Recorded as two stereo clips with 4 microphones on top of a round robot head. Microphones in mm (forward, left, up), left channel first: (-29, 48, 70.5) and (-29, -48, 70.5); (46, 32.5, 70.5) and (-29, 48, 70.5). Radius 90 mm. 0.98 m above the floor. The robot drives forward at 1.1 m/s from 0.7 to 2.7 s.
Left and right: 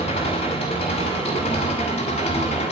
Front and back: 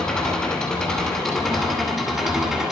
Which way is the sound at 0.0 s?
70° left.